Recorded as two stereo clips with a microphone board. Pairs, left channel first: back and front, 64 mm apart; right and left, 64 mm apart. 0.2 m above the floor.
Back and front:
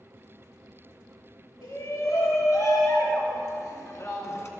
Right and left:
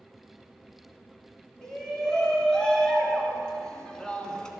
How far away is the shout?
About 4 m.